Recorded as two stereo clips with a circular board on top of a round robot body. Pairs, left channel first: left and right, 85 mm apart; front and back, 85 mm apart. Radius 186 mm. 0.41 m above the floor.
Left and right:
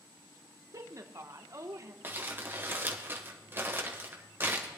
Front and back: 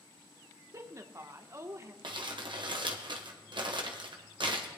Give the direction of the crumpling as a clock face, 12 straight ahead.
5 o'clock.